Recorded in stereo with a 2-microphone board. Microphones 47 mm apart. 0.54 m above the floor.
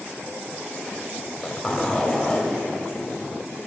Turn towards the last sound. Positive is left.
turn(degrees=10)  # may be behind; listen again after turning